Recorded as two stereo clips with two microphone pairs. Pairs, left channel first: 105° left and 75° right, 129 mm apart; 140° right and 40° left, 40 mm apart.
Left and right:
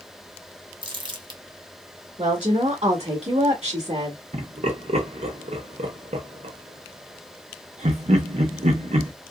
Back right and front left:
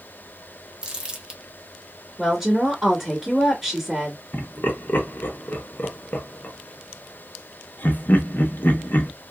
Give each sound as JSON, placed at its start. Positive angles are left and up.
{"t": 0.8, "sound": "crumpling", "azimuth_deg": -25, "distance_m": 1.0}
{"t": 2.2, "sound": "a woman speaking", "azimuth_deg": -35, "distance_m": 1.4}
{"t": 4.3, "sound": "laughter", "azimuth_deg": -100, "distance_m": 1.1}